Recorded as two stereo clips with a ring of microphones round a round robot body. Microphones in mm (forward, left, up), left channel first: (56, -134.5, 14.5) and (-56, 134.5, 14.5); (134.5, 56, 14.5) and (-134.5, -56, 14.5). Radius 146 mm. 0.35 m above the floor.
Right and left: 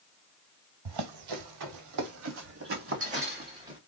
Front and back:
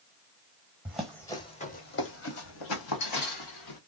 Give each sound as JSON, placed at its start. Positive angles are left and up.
{"t": 0.8, "sound": "running footsteps", "azimuth_deg": 120, "distance_m": 1.1}